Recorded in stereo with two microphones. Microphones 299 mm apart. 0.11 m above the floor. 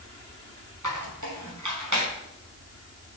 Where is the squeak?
85° right, 3 m.